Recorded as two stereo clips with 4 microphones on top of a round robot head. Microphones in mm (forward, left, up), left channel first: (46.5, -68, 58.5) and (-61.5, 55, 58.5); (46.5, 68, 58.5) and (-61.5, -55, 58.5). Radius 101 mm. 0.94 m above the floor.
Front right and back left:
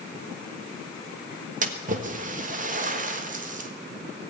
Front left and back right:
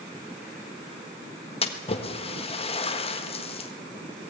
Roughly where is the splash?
Left.